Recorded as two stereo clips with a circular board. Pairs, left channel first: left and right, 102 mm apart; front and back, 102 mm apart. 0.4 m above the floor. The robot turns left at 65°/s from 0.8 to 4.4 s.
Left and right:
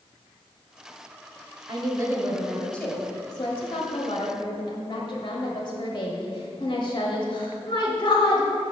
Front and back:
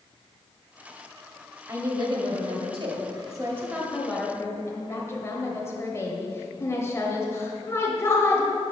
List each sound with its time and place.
1.7 s a woman speaking: 125° right, 1.4 m; by 8.5 s 60° left, 1.4 m